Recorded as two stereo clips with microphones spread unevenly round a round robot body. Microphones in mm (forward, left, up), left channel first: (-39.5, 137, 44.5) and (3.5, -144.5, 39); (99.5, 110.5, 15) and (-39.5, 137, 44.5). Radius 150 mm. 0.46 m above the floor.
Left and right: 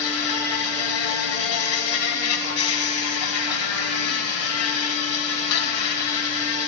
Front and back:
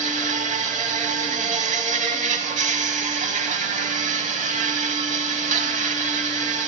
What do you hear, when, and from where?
0.0 s an insect: 140° left, 0.9 m